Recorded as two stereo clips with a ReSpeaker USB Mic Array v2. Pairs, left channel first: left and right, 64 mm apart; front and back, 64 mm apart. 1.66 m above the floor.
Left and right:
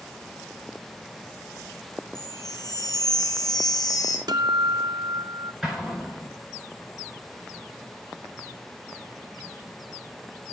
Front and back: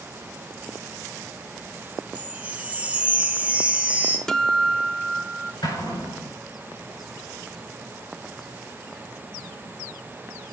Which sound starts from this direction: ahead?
An explosion, at 5.6 s.